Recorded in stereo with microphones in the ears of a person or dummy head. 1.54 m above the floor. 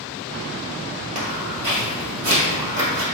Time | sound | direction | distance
1.1 | footsteps | 35° right (ahead or behind) | 2.0 m